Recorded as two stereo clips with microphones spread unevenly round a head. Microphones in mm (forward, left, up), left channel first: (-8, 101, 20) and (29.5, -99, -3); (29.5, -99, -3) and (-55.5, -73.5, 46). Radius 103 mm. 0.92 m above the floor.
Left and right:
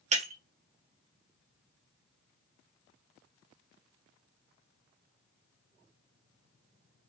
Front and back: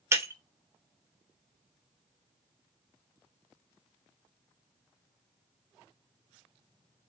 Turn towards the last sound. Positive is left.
turn(degrees=-140)